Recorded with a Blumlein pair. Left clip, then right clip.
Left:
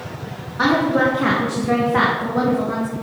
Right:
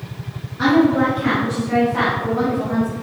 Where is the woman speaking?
25° left, 2.5 m; by 2.9 s 80° left, 3.5 m.